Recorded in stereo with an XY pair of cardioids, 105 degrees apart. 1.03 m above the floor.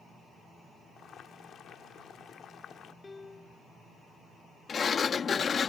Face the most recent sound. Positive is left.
turn(degrees=40)